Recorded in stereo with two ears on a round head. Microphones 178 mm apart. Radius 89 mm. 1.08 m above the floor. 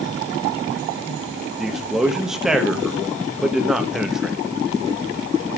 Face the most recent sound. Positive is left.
turn(degrees=0)  # may be behind; listen again after turning